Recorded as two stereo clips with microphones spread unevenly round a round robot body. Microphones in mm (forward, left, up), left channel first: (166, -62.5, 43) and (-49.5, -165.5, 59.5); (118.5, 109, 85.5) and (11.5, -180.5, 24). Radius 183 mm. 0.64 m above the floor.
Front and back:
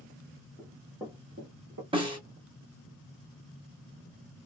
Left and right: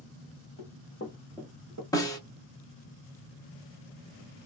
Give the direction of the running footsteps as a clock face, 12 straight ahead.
9 o'clock.